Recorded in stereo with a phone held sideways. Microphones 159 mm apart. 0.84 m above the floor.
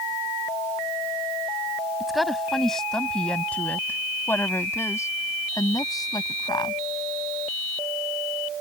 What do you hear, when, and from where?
2.0 s a woman speaking: centre (ahead or behind); by 6.8 s 30° left (ahead or behind)